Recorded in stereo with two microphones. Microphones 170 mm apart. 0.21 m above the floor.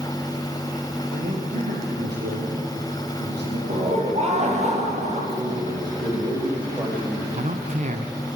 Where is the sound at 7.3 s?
45° right (ahead or behind), 1.5 m.